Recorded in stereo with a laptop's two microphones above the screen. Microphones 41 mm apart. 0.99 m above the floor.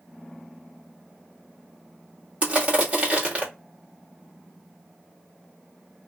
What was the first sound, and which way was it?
Crushing, 30° right (ahead or behind).